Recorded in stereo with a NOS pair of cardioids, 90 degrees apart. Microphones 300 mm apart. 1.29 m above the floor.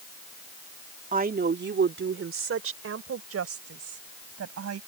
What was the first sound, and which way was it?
A woman speaking, 25° right.